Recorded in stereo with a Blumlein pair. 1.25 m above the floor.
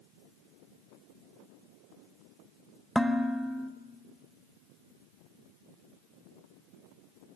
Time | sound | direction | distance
3.0 | dishes clattering | straight ahead | 1.2 m